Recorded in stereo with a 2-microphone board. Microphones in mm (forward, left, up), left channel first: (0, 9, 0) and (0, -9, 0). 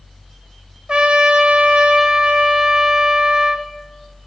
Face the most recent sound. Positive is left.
turn(degrees=-60)  # may be behind; listen again after turning